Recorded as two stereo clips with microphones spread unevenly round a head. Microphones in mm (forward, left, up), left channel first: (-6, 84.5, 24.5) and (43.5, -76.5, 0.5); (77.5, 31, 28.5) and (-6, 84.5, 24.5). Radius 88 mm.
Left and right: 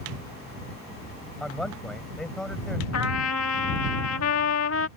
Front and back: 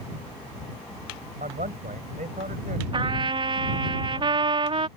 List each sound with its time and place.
1.4 s a man speaking: 165° right
2.9 s a trumpet: 110° left